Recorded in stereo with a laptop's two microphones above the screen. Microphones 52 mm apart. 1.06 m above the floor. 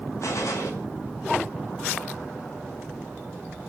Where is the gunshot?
75° left (ahead or behind), 6.5 m.